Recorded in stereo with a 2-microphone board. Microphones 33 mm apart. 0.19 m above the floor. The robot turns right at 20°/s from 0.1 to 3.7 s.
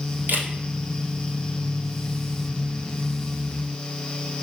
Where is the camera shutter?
80° right, 1.0 m.